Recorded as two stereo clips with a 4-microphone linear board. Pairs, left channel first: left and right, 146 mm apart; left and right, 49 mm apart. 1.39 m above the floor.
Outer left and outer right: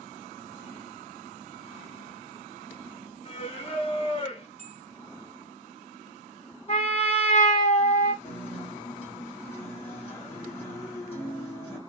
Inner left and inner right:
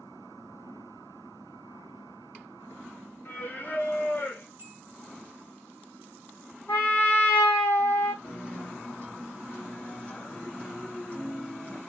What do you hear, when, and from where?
3.2 s singing: 40° left (ahead or behind), 0.9 m
4.6 s a bell: 45° right (ahead or behind), 1.1 m
6.7 s a trumpet: 45° left (ahead or behind), 1.7 m
8.2 s a guitar: 40° left (ahead or behind), 1.4 m